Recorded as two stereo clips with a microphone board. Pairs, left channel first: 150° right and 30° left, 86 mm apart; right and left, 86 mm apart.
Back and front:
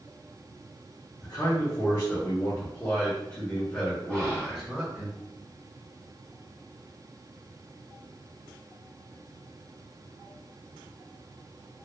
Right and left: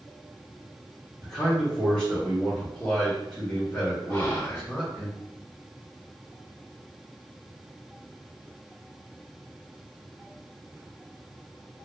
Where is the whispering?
75° right, 1.9 m.